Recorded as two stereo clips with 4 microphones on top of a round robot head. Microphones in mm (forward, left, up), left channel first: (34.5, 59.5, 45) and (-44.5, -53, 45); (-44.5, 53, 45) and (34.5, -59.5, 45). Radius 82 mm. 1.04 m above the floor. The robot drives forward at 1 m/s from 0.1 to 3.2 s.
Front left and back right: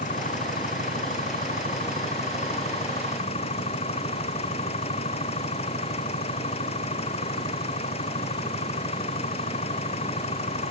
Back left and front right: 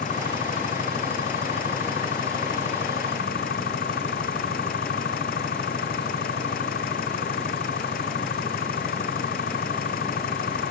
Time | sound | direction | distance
0.0 | an engine running | 90° left | ?